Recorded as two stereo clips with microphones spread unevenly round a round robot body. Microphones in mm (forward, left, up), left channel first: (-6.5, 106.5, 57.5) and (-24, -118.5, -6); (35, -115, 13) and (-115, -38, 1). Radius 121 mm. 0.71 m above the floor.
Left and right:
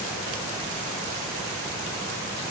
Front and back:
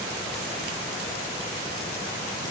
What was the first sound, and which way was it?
Only background noise.